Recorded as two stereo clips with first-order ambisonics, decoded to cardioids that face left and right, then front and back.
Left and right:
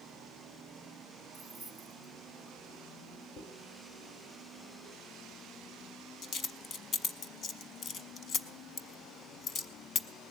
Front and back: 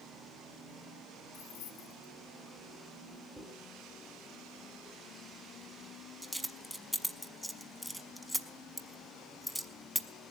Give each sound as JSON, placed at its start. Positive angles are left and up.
{"t": 1.3, "sound": "keys jangling", "azimuth_deg": 5, "distance_m": 1.7}
{"t": 3.4, "sound": "a dropped coin", "azimuth_deg": 85, "distance_m": 0.6}